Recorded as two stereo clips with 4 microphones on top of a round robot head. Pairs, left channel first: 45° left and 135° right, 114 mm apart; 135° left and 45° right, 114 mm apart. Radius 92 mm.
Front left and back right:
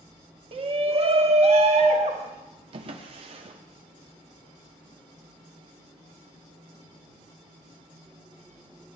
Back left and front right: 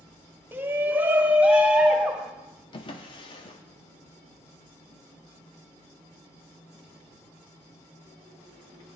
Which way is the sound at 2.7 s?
175° right.